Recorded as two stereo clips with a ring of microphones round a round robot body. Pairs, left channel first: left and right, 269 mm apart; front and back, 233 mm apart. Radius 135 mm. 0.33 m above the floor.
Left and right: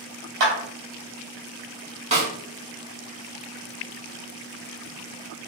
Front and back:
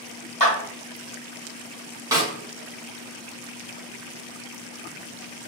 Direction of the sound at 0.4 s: 60° right.